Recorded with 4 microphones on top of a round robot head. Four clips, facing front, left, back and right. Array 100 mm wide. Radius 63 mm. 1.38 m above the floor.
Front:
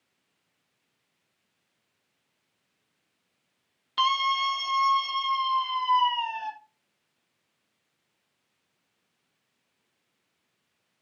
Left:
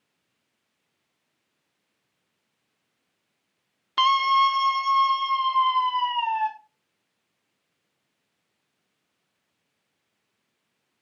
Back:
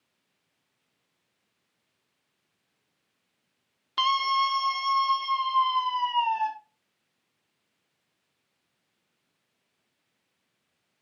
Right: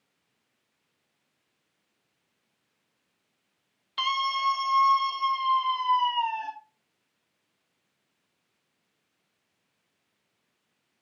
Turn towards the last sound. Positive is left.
turn(degrees=115)